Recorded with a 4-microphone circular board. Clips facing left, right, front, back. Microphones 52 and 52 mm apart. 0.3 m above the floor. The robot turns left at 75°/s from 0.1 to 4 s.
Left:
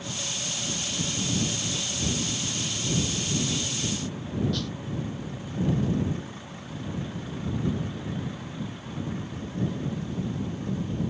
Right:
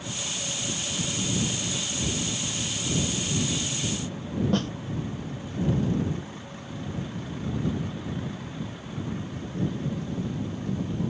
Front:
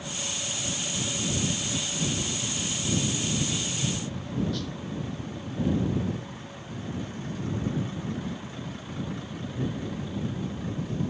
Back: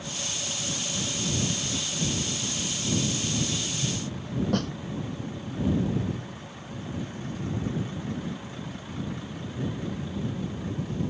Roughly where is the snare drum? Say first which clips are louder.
Right 6 dB, back 6 dB; behind right.